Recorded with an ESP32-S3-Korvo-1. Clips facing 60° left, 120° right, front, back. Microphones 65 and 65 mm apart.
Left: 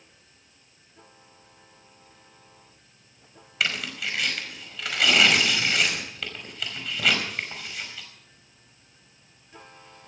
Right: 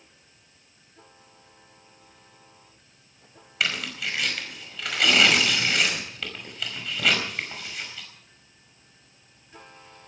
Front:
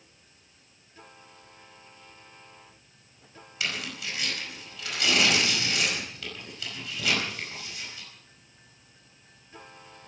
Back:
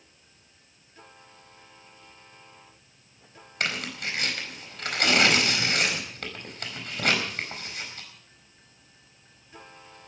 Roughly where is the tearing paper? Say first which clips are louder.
Even, back 3 dB; behind left.